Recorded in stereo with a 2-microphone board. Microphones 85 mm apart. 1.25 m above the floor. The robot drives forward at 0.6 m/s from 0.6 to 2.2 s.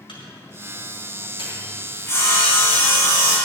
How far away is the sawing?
About 4.5 m.